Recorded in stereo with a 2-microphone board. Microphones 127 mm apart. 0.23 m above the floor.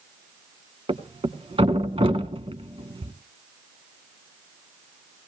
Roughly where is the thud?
Right.